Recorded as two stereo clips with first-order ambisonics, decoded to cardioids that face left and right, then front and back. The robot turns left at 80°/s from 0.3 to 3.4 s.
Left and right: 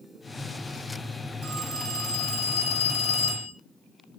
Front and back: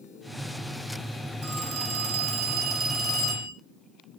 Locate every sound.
1.4 s a phone ringing: 145° right, 1.0 m; by 3.5 s 55° left, 1.0 m